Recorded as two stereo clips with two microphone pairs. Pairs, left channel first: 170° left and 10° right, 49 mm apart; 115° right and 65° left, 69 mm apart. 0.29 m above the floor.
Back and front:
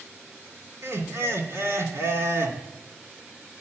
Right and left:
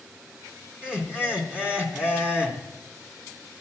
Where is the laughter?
10° right, 2.5 m.